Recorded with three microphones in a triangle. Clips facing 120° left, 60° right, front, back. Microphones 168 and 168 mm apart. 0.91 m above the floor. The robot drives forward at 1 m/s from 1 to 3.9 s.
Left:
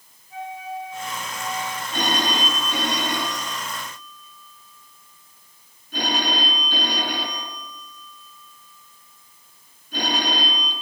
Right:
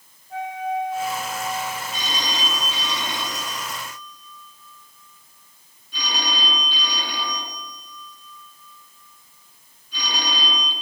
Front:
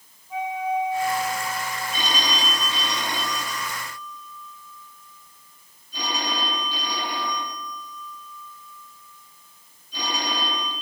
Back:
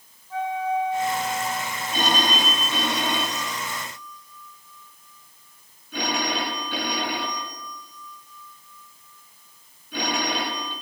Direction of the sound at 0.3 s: 75° right.